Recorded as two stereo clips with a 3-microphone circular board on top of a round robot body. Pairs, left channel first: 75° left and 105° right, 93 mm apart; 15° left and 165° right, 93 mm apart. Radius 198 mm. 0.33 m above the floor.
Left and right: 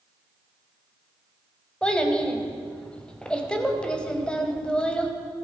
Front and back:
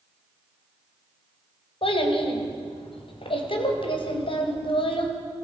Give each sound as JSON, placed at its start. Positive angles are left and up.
{"t": 1.8, "sound": "a child speaking", "azimuth_deg": -5, "distance_m": 1.7}